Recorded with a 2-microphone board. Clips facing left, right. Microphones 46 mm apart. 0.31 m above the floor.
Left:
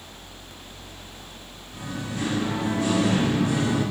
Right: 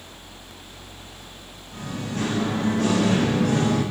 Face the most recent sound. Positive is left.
turn(degrees=-55)  # may be behind; listen again after turning